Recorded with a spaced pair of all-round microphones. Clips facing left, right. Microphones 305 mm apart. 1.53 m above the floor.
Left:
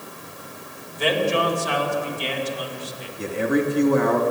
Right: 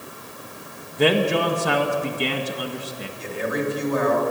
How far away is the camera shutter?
No camera shutter in this recording.